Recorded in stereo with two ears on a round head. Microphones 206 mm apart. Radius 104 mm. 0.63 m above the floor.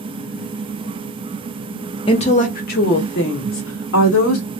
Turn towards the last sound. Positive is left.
turn(degrees=65)  # may be behind; listen again after turning